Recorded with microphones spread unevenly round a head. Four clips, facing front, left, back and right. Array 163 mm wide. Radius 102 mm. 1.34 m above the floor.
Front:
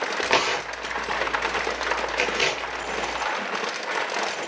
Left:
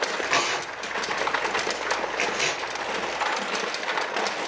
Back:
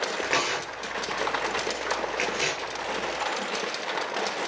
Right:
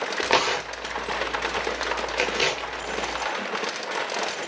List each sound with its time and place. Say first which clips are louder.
0.2 s tearing paper: right 3 dB, front 7 dB; 85° right, 2 m